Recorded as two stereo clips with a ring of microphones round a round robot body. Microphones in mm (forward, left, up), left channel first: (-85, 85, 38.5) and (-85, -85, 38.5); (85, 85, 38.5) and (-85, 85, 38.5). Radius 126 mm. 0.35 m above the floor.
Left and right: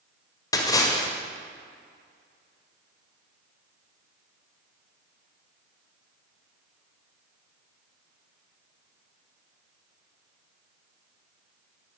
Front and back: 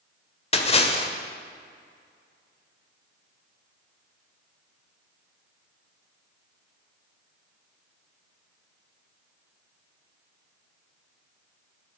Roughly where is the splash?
Ahead left.